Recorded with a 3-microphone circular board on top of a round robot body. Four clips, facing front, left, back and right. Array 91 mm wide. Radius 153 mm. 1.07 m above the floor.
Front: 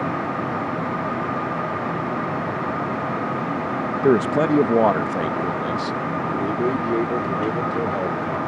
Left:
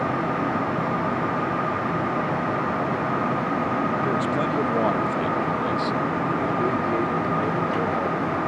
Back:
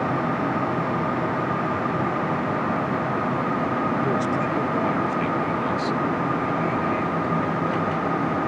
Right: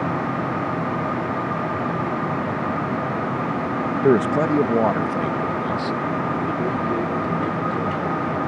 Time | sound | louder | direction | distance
4.0 | a man speaking | right 6 dB, front 6 dB | 45° right | ?